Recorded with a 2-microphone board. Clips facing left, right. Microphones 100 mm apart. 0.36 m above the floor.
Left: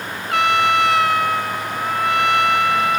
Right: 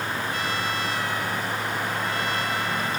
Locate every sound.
0.3 s a trumpet: 70° left (ahead or behind)